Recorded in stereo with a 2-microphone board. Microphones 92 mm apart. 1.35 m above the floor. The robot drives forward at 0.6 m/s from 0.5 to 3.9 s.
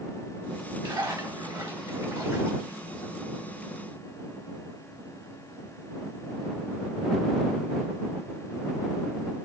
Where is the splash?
45° right (ahead or behind), 1.5 m; by 3.2 s 30° right (ahead or behind), 2.5 m.